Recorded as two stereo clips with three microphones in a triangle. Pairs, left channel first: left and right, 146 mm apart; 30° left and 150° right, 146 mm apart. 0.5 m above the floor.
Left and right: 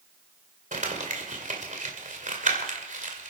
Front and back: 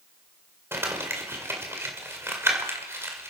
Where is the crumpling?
80° right, 2 m.